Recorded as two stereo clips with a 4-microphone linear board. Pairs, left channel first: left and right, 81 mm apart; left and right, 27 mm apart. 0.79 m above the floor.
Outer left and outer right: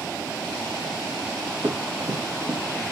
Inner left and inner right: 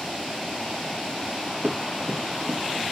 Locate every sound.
1.6 s running footsteps: 65° right (ahead or behind), 3.5 m